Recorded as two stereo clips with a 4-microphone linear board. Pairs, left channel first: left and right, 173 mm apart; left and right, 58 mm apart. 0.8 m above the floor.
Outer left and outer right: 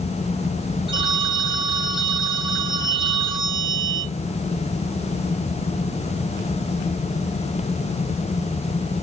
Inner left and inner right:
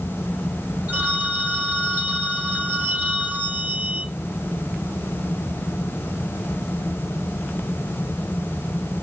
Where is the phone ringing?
30° right (ahead or behind), 2 m.